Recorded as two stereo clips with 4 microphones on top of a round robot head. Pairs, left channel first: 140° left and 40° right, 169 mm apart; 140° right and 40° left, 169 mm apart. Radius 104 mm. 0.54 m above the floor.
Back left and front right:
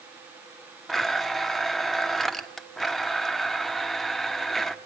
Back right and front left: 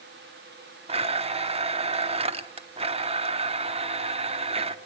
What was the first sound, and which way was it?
A blender, 50° left.